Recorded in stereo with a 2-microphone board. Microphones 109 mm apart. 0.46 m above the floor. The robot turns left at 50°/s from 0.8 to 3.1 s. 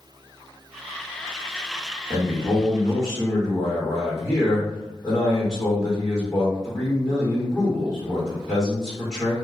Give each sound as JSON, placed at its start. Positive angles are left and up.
{"t": 2.1, "sound": "a man speaking", "azimuth_deg": -140, "distance_m": 1.6}